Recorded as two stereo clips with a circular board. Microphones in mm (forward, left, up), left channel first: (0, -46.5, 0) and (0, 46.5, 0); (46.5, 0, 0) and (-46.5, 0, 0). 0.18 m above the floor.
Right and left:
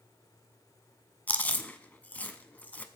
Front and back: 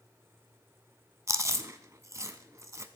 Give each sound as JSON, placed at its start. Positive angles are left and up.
{"t": 1.3, "sound": "chewing", "azimuth_deg": -150, "distance_m": 0.5}